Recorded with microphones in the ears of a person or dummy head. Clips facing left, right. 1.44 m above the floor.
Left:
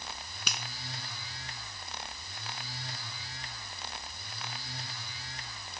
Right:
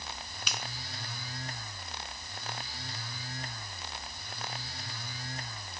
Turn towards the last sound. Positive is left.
turn(degrees=45)  # may be behind; listen again after turning